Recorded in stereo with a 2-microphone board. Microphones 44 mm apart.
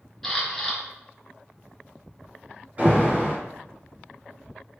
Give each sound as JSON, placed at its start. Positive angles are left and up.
{"t": 0.2, "sound": "a camera shutter", "side_deg": 5, "distance_m": 1.9}
{"t": 2.8, "sound": "an alarm", "side_deg": -35, "distance_m": 2.0}